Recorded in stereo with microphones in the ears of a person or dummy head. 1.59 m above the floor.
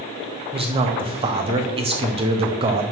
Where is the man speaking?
25° right (ahead or behind), 0.9 m.